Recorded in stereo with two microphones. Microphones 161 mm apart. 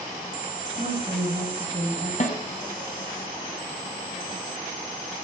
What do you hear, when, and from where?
0.8 s a woman speaking: 40° right (ahead or behind), 5.5 m
2.2 s a snare drum: 45° left (ahead or behind), 1.9 m